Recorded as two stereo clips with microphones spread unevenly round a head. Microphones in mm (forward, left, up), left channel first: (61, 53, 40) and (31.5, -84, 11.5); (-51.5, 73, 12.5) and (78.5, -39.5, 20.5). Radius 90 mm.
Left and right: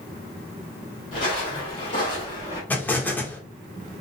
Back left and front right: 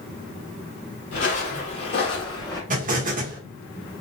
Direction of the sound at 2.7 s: 5° right.